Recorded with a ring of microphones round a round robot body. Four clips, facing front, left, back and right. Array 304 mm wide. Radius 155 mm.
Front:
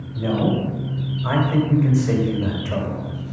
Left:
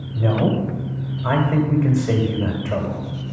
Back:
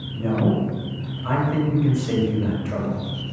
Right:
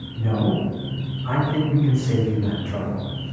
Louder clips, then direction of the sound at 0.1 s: Left 3 dB, front 1 dB; 75° left.